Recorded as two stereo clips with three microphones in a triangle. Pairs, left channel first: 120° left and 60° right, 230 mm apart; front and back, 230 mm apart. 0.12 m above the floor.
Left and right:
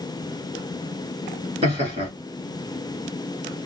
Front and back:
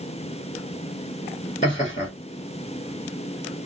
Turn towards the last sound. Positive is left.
turn(degrees=-20)